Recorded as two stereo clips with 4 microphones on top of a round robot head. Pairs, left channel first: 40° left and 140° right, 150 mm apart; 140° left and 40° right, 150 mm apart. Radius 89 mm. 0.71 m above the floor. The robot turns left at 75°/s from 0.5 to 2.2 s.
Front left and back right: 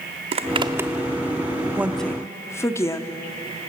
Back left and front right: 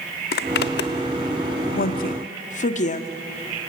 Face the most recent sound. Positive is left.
turn(degrees=110)